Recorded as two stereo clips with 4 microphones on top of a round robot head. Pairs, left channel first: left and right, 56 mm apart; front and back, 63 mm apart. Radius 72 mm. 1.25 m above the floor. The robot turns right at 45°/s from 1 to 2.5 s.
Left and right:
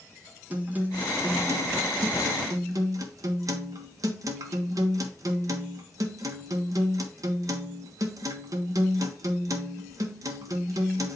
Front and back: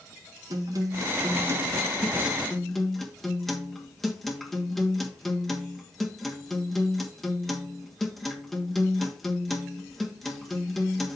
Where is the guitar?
150° right, 1.3 m; by 11.2 s 85° right, 1.3 m.